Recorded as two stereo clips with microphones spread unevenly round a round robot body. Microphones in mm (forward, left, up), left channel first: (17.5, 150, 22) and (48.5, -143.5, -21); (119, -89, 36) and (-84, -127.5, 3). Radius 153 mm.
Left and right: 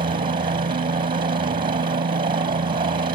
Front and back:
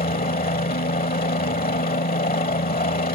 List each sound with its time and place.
0.0 s a helicopter: 25° right